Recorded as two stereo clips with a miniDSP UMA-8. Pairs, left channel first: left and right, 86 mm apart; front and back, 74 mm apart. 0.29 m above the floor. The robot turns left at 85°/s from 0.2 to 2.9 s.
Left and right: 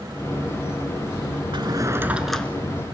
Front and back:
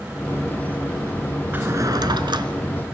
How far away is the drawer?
About 1.2 m.